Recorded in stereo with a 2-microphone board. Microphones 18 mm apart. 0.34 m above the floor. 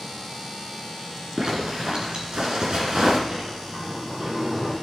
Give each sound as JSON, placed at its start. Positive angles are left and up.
{"t": 1.4, "sound": "a zipper", "side_deg": -45, "distance_m": 3.0}
{"t": 3.3, "sound": "a sliding door", "side_deg": -55, "distance_m": 4.5}